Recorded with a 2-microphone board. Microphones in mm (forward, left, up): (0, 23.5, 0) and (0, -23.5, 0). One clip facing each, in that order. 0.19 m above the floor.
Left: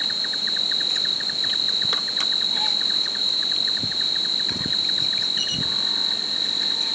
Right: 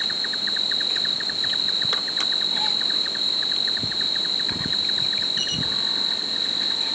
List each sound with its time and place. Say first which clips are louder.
0.0 s an insect: even; 5° right (ahead or behind)